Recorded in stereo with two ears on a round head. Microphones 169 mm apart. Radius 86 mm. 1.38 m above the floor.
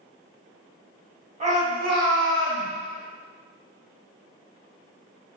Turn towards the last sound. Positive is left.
turn(degrees=-75)  # may be behind; listen again after turning